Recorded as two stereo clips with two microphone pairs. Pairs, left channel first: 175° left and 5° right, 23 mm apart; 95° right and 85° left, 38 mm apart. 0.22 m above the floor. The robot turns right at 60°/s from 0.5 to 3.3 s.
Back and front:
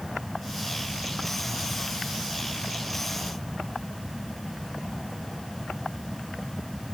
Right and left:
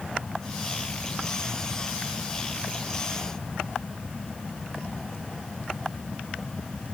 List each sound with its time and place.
Only background noise.